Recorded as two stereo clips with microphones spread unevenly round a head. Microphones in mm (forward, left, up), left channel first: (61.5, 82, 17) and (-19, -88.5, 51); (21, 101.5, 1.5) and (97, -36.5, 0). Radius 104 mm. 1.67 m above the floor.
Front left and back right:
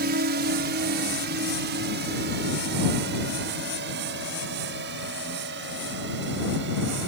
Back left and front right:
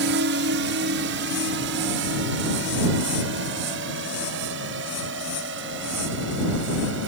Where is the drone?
75° right; by 7.1 s 85° right.